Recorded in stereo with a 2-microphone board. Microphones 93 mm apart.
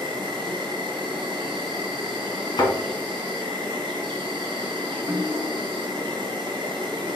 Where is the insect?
55° right (ahead or behind), 1.0 m.